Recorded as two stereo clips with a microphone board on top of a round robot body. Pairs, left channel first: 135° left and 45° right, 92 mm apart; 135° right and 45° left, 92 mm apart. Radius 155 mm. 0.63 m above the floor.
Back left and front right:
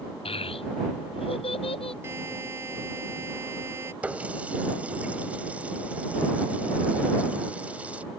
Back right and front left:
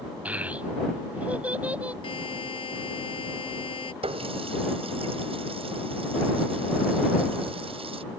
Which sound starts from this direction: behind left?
A child speaking, at 0.2 s.